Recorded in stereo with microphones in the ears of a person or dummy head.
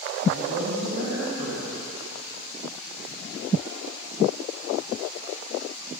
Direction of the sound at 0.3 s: 85° right.